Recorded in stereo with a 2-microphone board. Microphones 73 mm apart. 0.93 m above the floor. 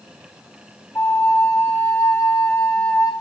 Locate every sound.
0.9 s a flute: 40° left (ahead or behind), 1.2 m